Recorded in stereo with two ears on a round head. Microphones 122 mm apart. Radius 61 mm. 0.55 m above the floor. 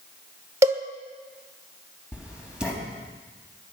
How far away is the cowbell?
About 1.2 m.